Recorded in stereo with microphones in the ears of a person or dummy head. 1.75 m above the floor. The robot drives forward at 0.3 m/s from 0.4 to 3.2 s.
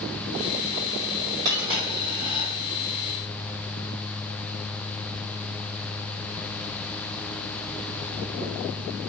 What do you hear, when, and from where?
1.4 s a dropped coin: 20° right (ahead or behind), 1.1 m; by 2.5 s 15° right (ahead or behind), 1.2 m